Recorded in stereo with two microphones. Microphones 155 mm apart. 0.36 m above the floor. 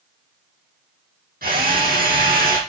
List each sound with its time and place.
1.4 s a drill: 75° right (ahead or behind), 6 m